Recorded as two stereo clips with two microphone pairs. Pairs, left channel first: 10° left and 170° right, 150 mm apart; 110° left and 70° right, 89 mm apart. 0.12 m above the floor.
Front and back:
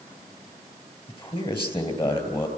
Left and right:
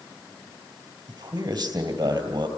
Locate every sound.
1.1 s a man speaking: 35° right, 3 m